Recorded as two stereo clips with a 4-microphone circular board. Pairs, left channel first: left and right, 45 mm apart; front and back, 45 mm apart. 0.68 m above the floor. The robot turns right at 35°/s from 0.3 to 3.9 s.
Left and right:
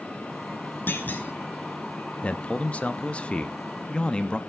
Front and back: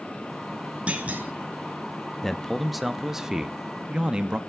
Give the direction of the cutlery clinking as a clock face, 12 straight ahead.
No cutlery clinking in this recording.